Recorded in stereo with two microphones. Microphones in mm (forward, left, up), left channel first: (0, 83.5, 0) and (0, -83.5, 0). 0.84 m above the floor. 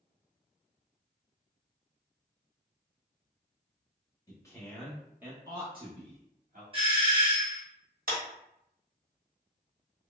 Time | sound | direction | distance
4.3 | a man speaking | 25° left (ahead or behind) | 1.0 m
6.7 | a doorbell | 30° right (ahead or behind) | 0.9 m
8.1 | a clap | 60° right (ahead or behind) | 1.0 m